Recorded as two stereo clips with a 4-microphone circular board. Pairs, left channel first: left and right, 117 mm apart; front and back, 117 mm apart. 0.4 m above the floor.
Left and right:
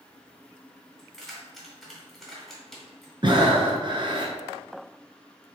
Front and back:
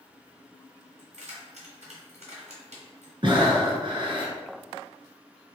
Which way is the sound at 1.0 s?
Straight behind.